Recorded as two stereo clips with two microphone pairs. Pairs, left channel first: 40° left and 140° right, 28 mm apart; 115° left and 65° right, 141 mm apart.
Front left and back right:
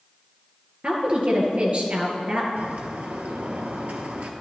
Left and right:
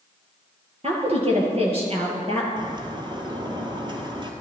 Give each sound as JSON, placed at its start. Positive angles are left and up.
{"t": 0.8, "sound": "a woman speaking", "azimuth_deg": -100, "distance_m": 2.5}
{"t": 2.6, "sound": "a bird", "azimuth_deg": -120, "distance_m": 1.2}